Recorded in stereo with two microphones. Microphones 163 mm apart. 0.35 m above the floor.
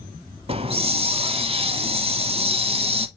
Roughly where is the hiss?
Right.